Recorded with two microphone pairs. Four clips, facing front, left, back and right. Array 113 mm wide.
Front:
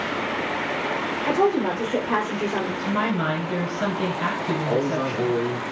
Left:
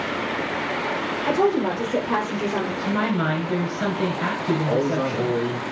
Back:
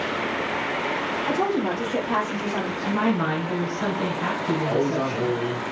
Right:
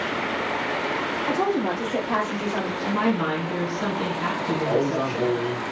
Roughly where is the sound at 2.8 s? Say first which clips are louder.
Right 2 dB, back 3 dB; ahead left.